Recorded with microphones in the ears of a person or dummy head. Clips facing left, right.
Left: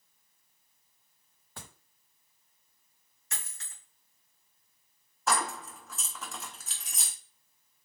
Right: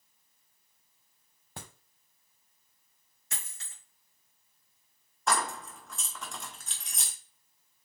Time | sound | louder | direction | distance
1.6 | a crack | right 3 dB | 20° right (ahead or behind) | 1.1 m
3.3 | a dropped coin | even | 30° right (ahead or behind) | 3.5 m
5.3 | keys jangling | even | 5° left (ahead or behind) | 0.6 m